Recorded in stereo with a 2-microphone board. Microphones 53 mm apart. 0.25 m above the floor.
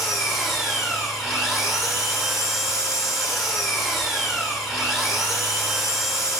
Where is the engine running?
Centre (ahead or behind), 7.5 m.